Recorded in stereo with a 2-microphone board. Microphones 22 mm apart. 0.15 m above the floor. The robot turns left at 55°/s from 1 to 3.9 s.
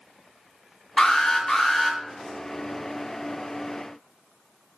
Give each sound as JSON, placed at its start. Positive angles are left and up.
{"t": 1.0, "sound": "an alarm", "azimuth_deg": 55, "distance_m": 3.5}